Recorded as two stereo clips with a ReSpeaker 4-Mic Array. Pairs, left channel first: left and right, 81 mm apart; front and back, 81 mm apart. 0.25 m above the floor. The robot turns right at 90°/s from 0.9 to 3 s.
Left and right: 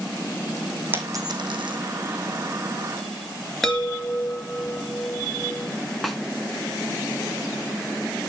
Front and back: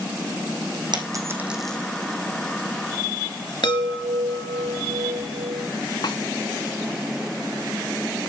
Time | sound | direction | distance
0.9 | a dropped coin | 155° right | 3 m
3.6 | a chime | 5° left | 3.5 m
6.0 | a snare drum | straight ahead | 2.5 m